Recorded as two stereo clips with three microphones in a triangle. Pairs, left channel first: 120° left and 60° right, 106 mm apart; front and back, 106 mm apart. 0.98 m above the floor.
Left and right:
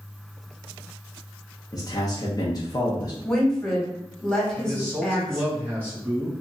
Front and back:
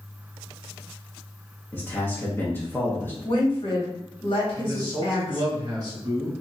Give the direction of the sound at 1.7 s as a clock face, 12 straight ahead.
10 o'clock.